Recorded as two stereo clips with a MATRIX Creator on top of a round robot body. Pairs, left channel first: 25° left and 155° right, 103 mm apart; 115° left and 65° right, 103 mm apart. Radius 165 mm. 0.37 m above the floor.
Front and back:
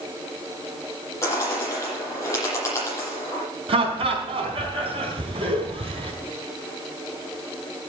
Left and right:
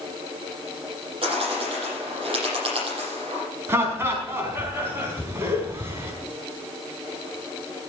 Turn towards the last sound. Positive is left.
turn(degrees=-135)